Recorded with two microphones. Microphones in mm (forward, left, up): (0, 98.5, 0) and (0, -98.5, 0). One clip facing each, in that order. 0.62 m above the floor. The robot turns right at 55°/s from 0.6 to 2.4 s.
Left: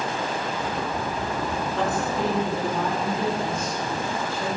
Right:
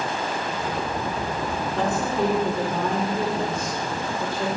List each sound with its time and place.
1.8 s a woman speaking: 150° right, 2 m; by 4.5 s 115° right, 2 m